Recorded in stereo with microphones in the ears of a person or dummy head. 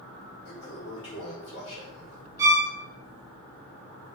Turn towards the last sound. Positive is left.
turn(degrees=-15)  # may be behind; listen again after turning